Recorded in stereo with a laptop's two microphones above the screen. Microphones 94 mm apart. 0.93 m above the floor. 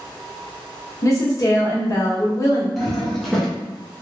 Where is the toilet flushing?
Centre (ahead or behind), 0.6 m.